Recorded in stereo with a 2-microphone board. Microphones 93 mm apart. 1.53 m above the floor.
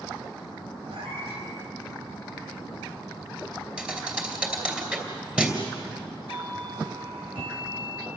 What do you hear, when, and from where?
0.9 s a cat meowing: 80° right, 5.5 m
3.8 s a thud: 10° right (ahead or behind), 3 m
6.3 s a doorbell: 85° right, 4 m